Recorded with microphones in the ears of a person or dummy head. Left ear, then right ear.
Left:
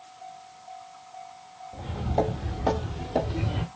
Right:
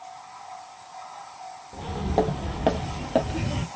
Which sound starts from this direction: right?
Footsteps, at 1.7 s.